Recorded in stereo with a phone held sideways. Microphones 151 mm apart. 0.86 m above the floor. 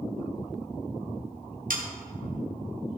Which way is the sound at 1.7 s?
65° right (ahead or behind).